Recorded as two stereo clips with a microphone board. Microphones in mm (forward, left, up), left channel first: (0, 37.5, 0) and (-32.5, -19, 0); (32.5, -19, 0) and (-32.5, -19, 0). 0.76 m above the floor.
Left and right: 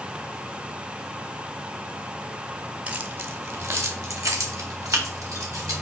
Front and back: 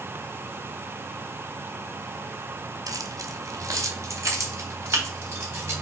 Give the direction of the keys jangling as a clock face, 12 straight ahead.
6 o'clock.